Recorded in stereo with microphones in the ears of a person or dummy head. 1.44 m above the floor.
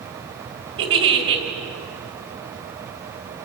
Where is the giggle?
30° right (ahead or behind), 2.5 m.